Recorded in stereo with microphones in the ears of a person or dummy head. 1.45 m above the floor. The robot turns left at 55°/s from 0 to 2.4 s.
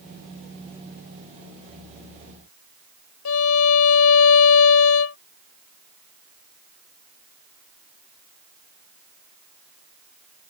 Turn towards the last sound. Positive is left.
turn(degrees=75)  # may be behind; listen again after turning